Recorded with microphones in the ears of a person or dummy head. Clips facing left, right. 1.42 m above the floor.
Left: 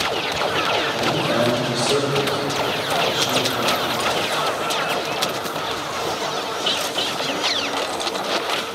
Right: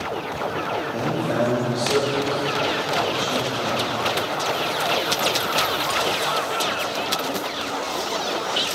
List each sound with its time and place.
0.9 s a man speaking: 25° right (ahead or behind), 2 m; by 3.9 s 85° left, 2.5 m